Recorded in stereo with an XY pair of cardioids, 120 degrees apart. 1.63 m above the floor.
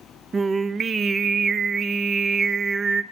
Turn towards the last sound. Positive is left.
turn(degrees=-35)